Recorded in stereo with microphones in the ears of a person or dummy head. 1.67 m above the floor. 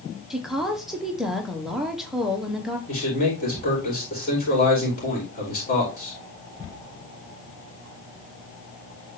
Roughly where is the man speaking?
Left.